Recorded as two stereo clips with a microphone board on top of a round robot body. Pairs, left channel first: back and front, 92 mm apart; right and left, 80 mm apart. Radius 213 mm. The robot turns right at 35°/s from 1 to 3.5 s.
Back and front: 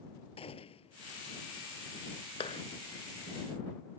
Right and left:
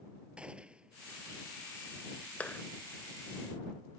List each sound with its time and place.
0.4 s a gunshot: 165° left
2.4 s a clap: 165° right; by 2.6 s 155° right